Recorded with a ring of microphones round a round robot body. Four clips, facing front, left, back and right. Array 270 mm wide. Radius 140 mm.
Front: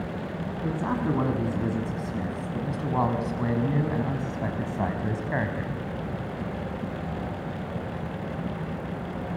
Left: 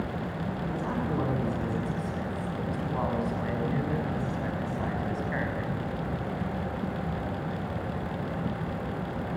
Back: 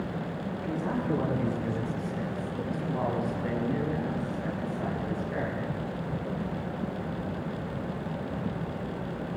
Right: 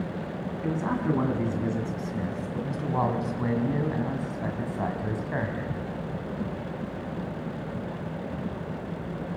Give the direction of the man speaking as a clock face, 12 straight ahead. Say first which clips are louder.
Right 6 dB, front 3 dB; 1 o'clock.